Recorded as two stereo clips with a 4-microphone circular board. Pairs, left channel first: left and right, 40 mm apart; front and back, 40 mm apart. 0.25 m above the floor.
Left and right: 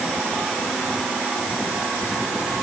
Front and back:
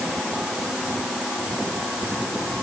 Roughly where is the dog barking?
No dog barking in this recording.